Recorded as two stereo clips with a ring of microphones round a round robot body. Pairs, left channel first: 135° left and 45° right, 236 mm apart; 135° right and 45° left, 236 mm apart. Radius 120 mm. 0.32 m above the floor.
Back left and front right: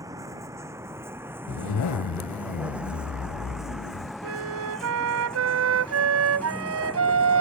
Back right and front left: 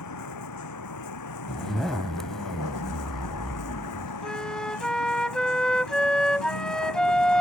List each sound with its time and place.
0.0 s a vehicle: 120° right; by 7.4 s 145° right
1.5 s a zipper: 135° left
4.2 s a flute: 50° right